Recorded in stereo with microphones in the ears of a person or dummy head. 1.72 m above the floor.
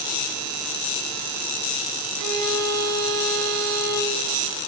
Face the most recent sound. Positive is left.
turn(degrees=-75)  # may be behind; listen again after turning